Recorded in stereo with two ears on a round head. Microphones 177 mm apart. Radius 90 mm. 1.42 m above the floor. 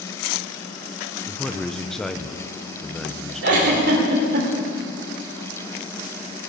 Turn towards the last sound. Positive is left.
turn(degrees=-60)  # may be behind; listen again after turning